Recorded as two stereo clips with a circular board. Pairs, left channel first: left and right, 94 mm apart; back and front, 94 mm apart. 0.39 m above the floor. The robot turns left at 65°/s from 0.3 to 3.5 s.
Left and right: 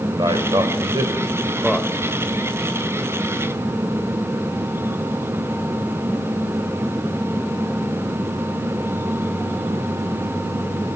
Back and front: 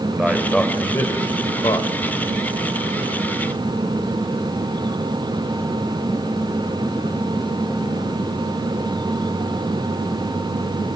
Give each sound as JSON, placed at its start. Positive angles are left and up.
{"t": 0.1, "sound": "a man speaking", "azimuth_deg": -85, "distance_m": 1.4}